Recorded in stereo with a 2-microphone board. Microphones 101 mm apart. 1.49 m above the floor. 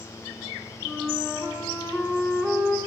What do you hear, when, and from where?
0.8 s a flute: 25° left (ahead or behind), 8.5 m